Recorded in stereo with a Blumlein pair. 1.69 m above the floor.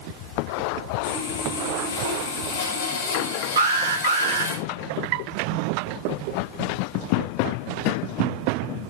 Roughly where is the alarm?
Ahead right.